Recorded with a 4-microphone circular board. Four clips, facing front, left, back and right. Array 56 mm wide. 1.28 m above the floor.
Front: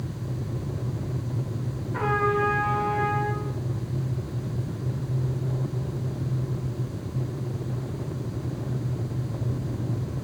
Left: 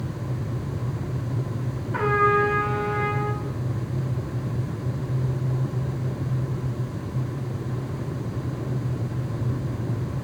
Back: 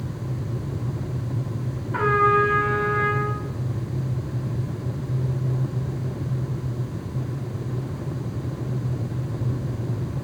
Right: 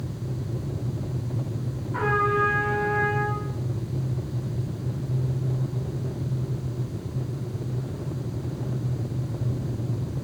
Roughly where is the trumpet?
Behind.